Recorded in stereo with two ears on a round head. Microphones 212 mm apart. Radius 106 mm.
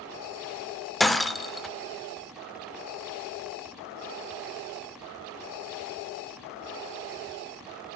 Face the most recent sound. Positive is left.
turn(degrees=0)  # may be behind; listen again after turning